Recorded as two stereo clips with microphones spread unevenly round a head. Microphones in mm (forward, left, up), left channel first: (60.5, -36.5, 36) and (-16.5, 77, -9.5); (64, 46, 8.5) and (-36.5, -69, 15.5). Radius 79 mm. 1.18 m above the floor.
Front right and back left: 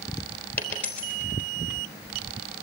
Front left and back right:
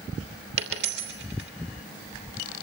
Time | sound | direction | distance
0.6 | a dropped coin | 130° right | 3 m